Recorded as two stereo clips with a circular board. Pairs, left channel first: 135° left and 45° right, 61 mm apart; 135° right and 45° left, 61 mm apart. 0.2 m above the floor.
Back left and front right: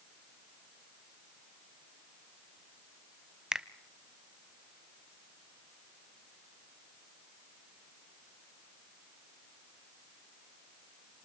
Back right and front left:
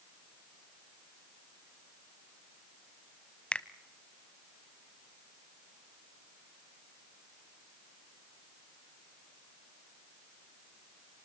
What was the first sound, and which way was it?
A finger snap, 105° right.